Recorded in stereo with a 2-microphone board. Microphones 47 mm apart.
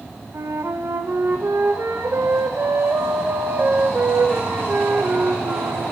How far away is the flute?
About 2 m.